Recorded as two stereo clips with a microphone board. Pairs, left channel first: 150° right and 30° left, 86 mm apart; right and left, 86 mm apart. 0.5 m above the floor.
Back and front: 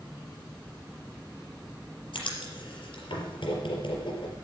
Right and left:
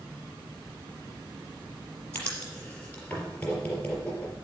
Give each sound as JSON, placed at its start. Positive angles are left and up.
{"t": 2.1, "sound": "writing", "azimuth_deg": -165, "distance_m": 4.0}